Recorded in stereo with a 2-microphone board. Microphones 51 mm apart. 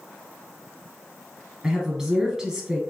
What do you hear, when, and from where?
1.6 s a woman speaking: 10° right (ahead or behind), 1.8 m